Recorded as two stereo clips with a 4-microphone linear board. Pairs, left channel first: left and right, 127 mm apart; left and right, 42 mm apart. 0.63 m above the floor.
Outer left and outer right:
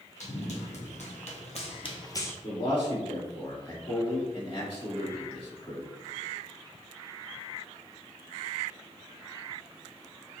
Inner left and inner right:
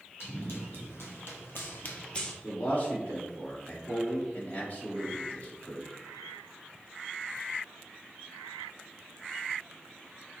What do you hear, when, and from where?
0.2 s running footsteps: 60° left (ahead or behind), 2 m; by 2.3 s 20° left (ahead or behind), 0.9 m
2.4 s a man speaking: 45° left (ahead or behind), 1.9 m